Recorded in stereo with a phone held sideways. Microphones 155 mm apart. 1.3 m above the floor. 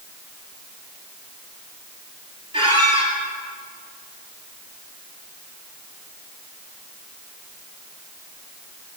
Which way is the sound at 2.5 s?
30° right (ahead or behind).